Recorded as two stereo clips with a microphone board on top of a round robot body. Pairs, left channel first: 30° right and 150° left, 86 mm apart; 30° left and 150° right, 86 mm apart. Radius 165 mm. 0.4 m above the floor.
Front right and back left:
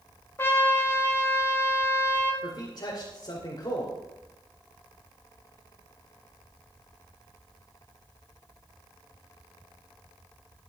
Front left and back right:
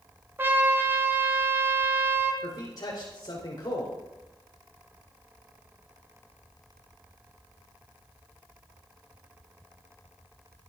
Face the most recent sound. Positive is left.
turn(degrees=-5)